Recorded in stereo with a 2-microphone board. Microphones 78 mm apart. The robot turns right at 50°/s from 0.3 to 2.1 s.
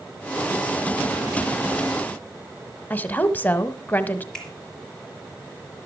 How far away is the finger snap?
About 4 m.